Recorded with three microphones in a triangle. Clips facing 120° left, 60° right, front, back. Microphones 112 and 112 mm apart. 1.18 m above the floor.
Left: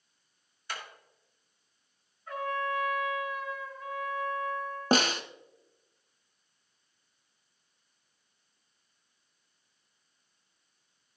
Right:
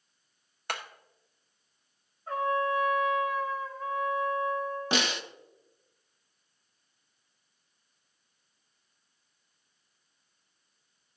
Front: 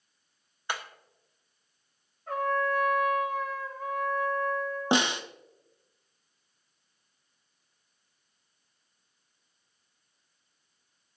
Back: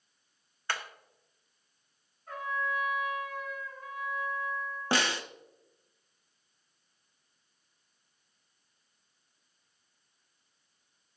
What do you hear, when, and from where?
0.7 s hammering: 75° right, 1.2 m
2.3 s a trumpet: 5° right, 3 m
4.9 s a snare drum: 70° left, 0.8 m